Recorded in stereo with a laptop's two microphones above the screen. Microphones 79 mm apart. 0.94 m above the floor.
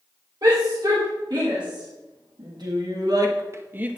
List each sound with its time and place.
0.4 s a shout: 60° right (ahead or behind), 3 m; by 4.0 s 15° right (ahead or behind), 1.1 m